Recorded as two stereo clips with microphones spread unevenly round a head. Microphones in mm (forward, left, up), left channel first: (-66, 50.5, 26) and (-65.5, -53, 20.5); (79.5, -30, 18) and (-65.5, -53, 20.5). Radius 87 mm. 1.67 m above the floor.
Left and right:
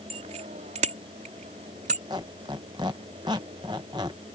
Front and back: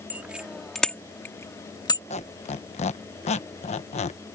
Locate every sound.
0.1 s a bicycle bell: 95° right; by 2.0 s 45° right
2.1 s a squeak: 25° right